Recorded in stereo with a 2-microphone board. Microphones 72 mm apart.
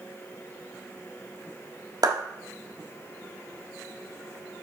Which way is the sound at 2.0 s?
60° right (ahead or behind).